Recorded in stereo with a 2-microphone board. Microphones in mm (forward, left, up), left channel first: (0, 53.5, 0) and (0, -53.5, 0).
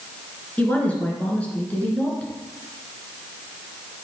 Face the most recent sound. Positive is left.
turn(degrees=15)  # may be behind; listen again after turning